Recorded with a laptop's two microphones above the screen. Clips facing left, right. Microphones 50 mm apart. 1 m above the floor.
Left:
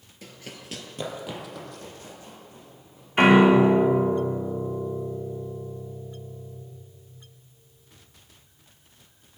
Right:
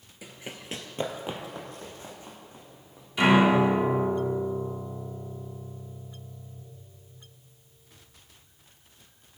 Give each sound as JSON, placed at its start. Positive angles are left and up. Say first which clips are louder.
{"t": 0.2, "sound": "running footsteps", "louder": "right 1 dB", "side_deg": -10, "distance_m": 1.0}
{"t": 3.2, "sound": "a piano", "louder": "left 4 dB", "side_deg": 45, "distance_m": 2.0}